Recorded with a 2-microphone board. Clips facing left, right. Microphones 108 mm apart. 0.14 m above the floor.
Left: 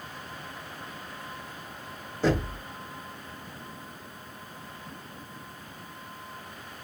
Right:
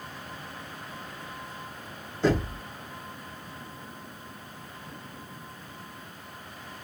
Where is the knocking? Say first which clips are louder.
Right 1 dB; 5° left (ahead or behind), 2.0 m.